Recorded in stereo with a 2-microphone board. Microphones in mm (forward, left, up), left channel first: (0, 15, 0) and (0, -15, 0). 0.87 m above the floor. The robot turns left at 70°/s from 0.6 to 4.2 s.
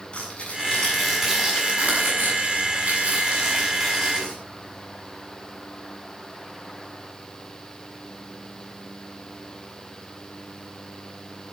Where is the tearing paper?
35° left (ahead or behind), 7.5 m.